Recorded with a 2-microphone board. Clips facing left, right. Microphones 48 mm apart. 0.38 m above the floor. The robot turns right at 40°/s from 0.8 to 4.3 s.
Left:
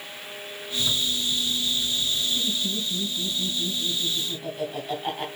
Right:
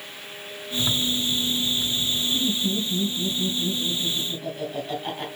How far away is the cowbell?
No cowbell in this recording.